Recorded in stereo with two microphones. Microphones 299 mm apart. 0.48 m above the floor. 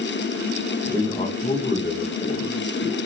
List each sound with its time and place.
0.8 s a man speaking: centre (ahead or behind), 1.1 m; by 3.0 s 50° left (ahead or behind), 2 m